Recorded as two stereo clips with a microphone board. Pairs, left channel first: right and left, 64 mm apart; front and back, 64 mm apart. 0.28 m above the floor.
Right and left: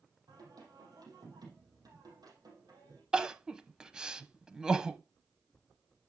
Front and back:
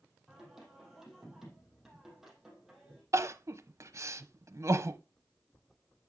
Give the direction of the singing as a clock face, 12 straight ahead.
9 o'clock.